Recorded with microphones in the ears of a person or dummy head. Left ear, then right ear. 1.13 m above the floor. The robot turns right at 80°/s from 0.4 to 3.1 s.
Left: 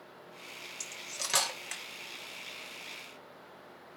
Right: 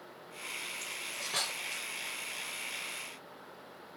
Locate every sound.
0.8 s cutlery clinking: 55° left (ahead or behind), 1.3 m; by 1.8 s 40° left (ahead or behind), 1.3 m